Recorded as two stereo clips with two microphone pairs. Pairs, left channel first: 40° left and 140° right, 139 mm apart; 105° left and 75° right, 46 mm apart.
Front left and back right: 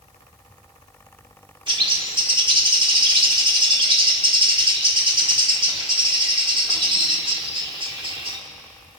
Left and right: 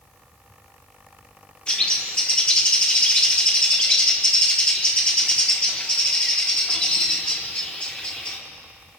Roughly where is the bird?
Behind.